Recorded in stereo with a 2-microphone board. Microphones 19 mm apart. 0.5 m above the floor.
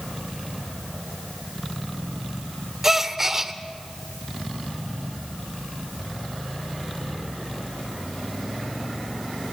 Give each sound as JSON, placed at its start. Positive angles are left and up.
{"t": 2.8, "sound": "a gasp", "side_deg": -10, "distance_m": 0.9}